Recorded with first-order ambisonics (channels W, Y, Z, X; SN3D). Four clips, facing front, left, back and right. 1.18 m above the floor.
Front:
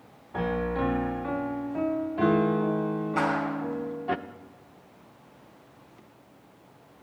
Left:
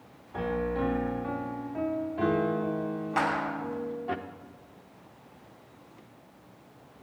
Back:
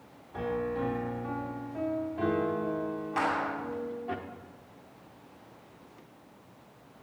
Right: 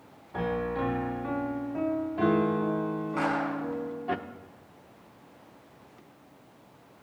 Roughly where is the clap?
Left.